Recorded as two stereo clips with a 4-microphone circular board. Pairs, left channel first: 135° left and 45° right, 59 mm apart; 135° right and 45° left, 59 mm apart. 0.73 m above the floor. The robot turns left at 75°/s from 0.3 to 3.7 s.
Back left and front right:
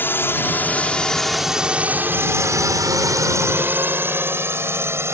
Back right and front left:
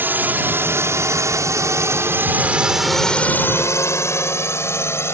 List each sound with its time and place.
0.0 s a drone: 90° left; by 5.1 s 90° right